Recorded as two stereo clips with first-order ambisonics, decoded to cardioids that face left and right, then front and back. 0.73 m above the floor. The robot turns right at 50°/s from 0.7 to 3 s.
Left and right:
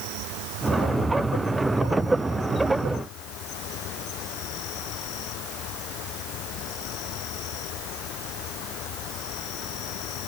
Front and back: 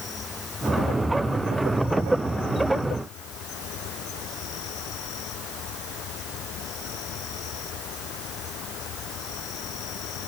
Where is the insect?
65° right; by 10.3 s 50° left.